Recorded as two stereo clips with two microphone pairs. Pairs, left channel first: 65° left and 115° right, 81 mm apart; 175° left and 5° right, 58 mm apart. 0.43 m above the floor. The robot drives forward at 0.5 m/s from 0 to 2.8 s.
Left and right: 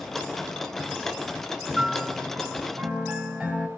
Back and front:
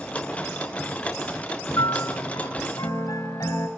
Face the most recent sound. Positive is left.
turn(degrees=170)